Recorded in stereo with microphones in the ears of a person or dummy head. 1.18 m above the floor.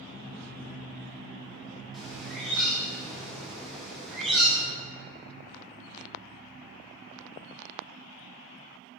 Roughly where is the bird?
Centre.